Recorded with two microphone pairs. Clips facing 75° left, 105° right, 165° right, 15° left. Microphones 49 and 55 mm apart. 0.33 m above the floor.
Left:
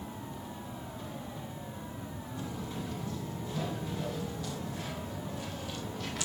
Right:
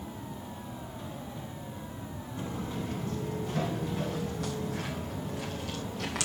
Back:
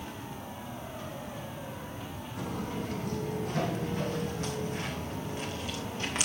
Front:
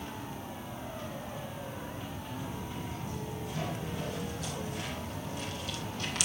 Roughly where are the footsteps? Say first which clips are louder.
Right 4 dB, back 7 dB; behind right.